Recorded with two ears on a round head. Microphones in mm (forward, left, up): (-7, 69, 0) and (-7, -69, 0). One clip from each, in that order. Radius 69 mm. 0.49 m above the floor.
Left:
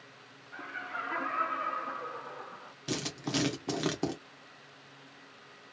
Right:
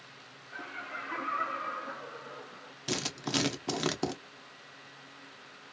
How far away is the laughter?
About 0.9 m.